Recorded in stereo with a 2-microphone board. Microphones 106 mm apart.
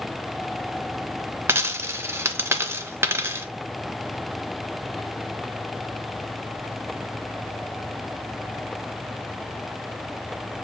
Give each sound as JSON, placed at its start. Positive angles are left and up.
{"t": 1.5, "sound": "a dropped coin", "side_deg": -25, "distance_m": 0.6}